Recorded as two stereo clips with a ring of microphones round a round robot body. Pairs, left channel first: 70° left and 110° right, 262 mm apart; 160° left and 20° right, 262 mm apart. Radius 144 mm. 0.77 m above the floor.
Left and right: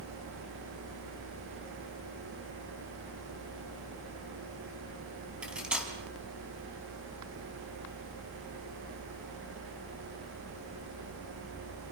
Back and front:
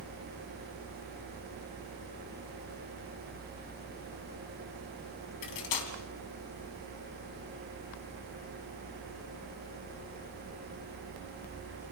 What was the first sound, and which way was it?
Cutlery clinking, 160° left.